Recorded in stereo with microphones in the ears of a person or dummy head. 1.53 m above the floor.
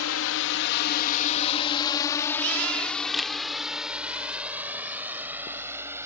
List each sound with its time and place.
0.0 s a drone: 80° left; by 6.1 s 10° right (ahead or behind)
3.1 s a camera shutter: centre (ahead or behind)